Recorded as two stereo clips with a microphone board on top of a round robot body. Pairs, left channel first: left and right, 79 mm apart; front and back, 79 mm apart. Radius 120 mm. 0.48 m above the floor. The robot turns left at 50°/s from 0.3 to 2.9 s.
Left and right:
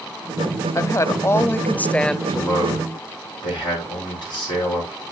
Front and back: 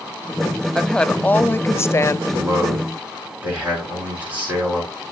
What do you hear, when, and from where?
0.8 s a woman speaking: 85° left, 0.8 m; by 2.2 s 15° left, 0.8 m
2.3 s a man speaking: 140° left, 8.5 m; by 5.0 s 110° left, 8.5 m